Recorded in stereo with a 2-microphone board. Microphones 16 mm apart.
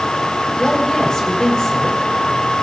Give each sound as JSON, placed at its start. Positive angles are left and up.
{"t": 0.6, "sound": "a woman speaking", "side_deg": 45, "distance_m": 6.0}